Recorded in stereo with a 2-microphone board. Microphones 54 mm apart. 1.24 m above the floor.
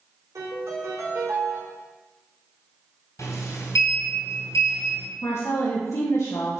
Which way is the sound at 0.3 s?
75° right (ahead or behind).